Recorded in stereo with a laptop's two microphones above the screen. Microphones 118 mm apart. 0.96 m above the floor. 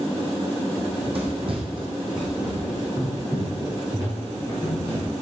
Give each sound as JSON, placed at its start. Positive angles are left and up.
{"t": 0.8, "sound": "running footsteps", "side_deg": -55, "distance_m": 2.5}